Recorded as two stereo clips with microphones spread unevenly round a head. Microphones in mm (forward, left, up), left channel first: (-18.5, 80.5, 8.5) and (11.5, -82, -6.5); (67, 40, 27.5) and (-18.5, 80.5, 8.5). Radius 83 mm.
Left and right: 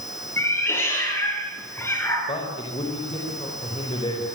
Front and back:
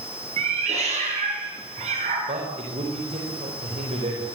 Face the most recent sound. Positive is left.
turn(degrees=160)